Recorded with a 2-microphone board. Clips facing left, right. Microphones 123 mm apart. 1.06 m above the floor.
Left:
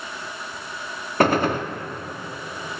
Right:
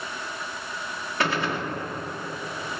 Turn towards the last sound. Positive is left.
turn(degrees=50)  # may be behind; listen again after turning